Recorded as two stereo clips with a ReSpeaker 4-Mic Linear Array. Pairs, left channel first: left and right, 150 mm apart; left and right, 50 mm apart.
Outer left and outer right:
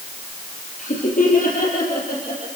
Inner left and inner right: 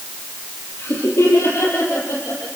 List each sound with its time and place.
0.8 s laughter: 60° left (ahead or behind), 5 m; by 2.5 s 80° left, 6 m